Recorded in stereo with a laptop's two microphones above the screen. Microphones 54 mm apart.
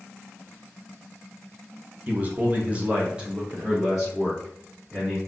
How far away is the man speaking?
About 0.9 m.